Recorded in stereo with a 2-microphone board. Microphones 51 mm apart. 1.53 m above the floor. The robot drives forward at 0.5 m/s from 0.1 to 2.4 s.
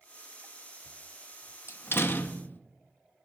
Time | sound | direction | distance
1.7 | a door slam | 55° left (ahead or behind) | 0.7 m